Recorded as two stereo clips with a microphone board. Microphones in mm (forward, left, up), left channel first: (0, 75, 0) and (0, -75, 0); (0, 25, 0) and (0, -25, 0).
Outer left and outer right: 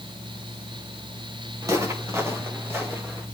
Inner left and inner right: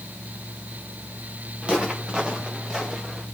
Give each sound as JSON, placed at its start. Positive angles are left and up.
{"t": 1.6, "sound": "footsteps", "side_deg": -20, "distance_m": 4.0}